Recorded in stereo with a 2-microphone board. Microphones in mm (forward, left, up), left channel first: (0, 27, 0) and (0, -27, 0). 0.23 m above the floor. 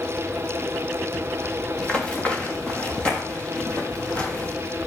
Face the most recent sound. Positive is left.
turn(degrees=25)  # may be behind; listen again after turning